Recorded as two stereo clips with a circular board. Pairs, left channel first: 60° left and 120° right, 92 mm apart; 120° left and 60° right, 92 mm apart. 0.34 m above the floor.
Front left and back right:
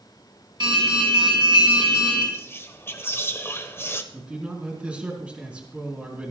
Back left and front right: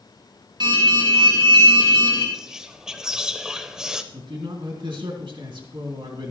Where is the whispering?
15° left, 1.1 m.